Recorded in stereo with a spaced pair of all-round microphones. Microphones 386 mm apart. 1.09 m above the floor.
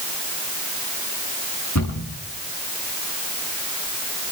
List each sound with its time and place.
1.8 s a cupboard door: 50° left (ahead or behind), 8.5 m